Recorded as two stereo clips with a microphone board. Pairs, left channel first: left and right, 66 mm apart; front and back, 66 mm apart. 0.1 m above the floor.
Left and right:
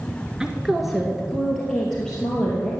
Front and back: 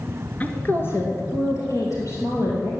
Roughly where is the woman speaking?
Ahead right.